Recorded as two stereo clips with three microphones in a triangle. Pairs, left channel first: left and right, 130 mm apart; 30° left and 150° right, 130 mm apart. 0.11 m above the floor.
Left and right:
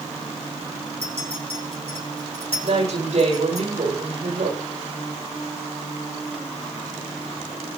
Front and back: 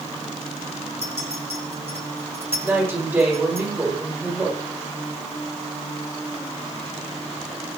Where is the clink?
50° left, 5 m.